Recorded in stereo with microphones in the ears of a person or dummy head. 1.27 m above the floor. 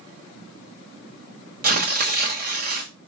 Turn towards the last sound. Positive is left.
turn(degrees=-45)  # may be behind; listen again after turning